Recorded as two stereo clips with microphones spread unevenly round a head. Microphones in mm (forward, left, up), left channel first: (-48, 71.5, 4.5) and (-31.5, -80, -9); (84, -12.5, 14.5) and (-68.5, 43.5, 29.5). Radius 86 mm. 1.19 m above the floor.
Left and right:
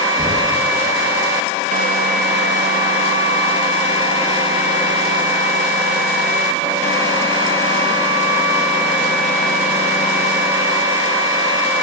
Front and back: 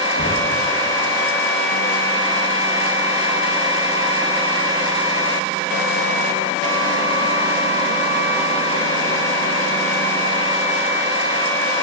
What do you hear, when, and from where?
0.2 s knocking: 20° right, 1.7 m